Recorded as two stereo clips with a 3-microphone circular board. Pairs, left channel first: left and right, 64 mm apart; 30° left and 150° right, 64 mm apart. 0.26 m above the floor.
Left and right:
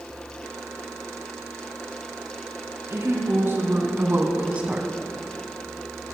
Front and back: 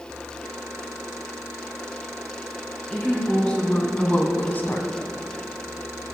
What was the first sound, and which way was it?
A woman speaking, 45° right.